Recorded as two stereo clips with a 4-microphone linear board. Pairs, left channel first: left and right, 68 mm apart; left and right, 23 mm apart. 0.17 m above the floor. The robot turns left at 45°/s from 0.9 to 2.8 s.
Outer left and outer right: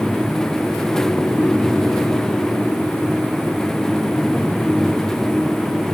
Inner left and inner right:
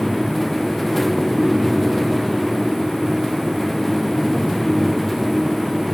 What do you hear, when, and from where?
Only background noise.